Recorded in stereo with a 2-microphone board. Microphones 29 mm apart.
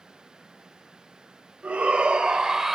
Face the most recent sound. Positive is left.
turn(degrees=-10)  # may be behind; listen again after turning